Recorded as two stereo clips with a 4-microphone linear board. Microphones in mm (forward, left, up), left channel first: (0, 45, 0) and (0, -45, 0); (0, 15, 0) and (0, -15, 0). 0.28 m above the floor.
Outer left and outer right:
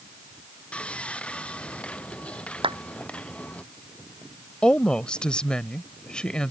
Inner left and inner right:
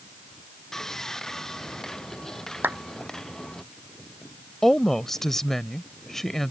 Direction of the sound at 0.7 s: 15° left (ahead or behind).